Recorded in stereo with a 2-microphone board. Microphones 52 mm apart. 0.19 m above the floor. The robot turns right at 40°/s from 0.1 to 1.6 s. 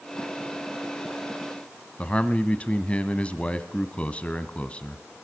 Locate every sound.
2.0 s a man speaking: 25° left (ahead or behind), 1.1 m